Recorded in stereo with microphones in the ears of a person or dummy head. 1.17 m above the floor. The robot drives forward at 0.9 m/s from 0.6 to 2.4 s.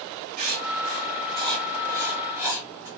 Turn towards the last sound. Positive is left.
turn(degrees=-25)  # may be behind; listen again after turning